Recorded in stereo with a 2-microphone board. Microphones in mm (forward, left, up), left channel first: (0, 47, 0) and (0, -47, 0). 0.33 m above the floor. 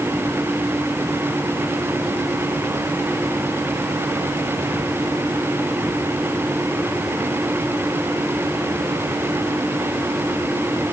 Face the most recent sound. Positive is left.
No sound to turn to.